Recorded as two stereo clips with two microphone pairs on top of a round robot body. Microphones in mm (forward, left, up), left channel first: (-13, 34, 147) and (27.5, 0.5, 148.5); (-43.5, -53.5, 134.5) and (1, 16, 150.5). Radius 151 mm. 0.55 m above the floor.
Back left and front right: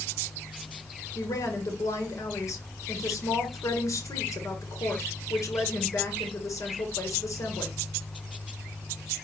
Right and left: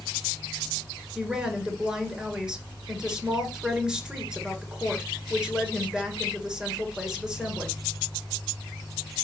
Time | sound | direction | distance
1.1 | a woman speaking | 140° left | 3 m